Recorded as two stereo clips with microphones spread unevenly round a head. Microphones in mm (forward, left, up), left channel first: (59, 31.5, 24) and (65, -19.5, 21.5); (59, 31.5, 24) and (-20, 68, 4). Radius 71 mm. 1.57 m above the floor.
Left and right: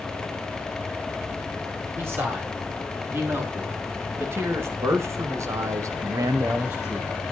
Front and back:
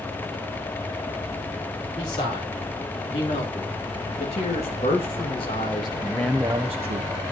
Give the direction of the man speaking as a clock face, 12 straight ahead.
1 o'clock.